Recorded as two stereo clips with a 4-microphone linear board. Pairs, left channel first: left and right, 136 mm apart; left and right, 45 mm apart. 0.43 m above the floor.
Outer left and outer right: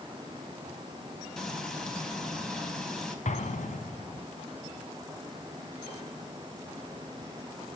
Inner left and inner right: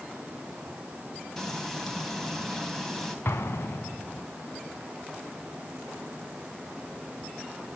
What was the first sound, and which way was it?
Frying, 5° left (ahead or behind).